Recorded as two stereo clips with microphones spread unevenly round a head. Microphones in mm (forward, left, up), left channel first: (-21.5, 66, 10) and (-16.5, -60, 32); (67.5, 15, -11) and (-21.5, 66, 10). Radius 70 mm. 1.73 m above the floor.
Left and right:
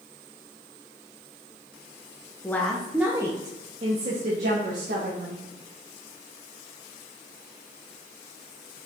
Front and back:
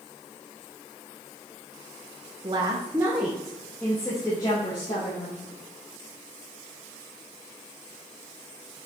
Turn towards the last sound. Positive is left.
turn(degrees=-85)